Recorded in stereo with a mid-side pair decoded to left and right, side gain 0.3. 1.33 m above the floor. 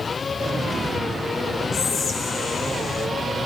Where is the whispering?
70° left, 2.5 m.